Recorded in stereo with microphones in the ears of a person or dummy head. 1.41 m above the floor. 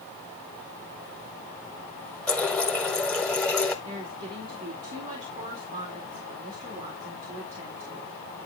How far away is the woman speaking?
About 2.5 m.